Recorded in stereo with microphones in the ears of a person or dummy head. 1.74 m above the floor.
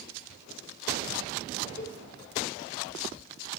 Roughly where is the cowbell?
Left.